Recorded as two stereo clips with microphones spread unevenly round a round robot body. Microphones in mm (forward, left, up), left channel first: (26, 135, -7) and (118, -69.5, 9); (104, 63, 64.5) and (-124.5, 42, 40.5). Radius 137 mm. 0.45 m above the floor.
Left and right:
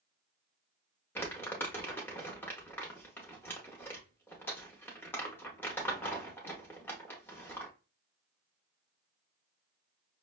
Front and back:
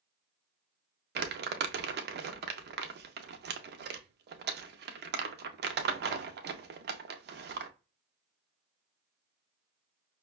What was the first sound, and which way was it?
Crumpling, 170° right.